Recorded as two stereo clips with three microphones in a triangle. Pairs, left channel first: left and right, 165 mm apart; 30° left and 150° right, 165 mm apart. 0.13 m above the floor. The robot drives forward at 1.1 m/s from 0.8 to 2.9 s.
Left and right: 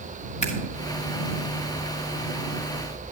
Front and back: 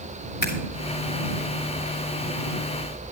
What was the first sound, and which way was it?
Scissors, 45° left.